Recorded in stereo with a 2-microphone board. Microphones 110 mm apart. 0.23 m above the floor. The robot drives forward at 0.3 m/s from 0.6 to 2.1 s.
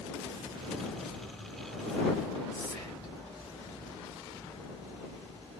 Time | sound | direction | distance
2.5 | whispering | 35° left (ahead or behind) | 1.5 m